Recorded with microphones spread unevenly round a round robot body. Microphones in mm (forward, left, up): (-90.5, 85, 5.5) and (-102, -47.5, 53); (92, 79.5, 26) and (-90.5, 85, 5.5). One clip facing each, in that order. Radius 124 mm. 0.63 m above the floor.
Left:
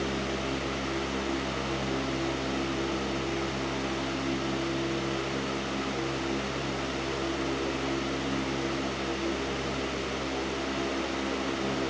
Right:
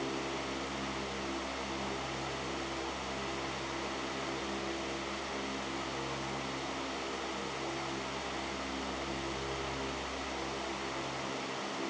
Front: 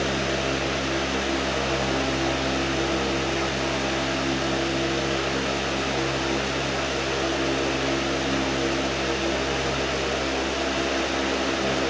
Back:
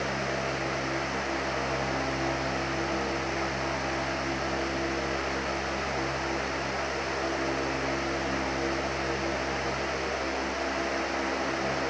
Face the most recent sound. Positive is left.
No sound to turn to.